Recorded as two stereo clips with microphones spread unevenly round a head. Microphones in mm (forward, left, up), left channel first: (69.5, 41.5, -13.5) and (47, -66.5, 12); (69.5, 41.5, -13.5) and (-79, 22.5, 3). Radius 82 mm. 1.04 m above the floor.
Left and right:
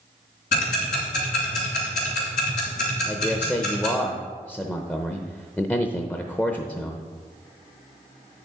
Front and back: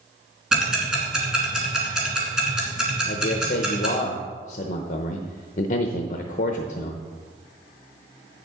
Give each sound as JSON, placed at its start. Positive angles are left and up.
{"t": 0.5, "sound": "ticking", "azimuth_deg": 105, "distance_m": 2.5}
{"t": 3.1, "sound": "a man speaking", "azimuth_deg": 15, "distance_m": 0.7}